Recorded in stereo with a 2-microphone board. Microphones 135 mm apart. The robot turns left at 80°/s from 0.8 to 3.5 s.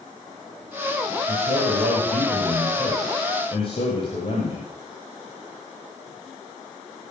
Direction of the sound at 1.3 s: 55° right.